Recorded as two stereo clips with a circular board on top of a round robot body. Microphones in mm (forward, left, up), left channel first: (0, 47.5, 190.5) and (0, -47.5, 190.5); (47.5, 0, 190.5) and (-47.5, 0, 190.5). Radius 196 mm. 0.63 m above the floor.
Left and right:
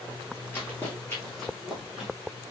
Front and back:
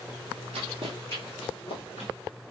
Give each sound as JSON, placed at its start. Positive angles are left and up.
{"t": 0.5, "sound": "running footsteps", "azimuth_deg": 165, "distance_m": 0.9}